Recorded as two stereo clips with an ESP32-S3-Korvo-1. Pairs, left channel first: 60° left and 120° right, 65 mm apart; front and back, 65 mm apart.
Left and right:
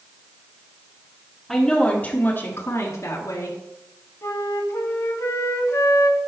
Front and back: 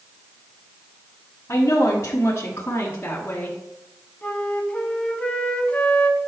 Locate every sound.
1.5 s a woman speaking: 30° right, 1.6 m; by 3.6 s 65° left, 2.5 m
4.2 s a flute: 60° left, 1.0 m